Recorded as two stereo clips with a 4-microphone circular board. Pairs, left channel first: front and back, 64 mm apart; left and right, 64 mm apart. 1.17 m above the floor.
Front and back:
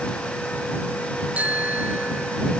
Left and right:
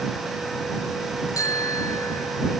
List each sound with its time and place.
1.4 s a bicycle bell: 115° left; by 2.5 s 120° left